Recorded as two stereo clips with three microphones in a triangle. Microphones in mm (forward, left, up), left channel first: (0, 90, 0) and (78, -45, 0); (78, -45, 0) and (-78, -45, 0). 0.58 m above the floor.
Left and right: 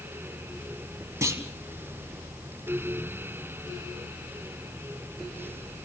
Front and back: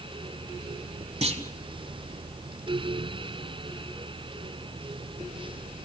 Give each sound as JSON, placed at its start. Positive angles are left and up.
{"t": 1.2, "sound": "a clunk", "azimuth_deg": -130, "distance_m": 1.6}